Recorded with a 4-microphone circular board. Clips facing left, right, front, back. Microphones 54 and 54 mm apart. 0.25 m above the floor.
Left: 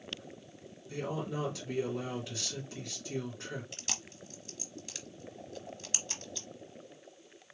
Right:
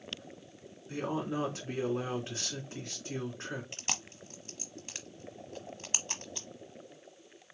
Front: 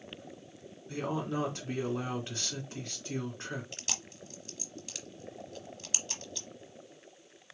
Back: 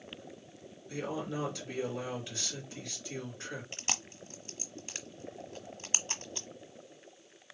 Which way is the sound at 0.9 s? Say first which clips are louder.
Right 2 dB, front 3 dB; 45° right.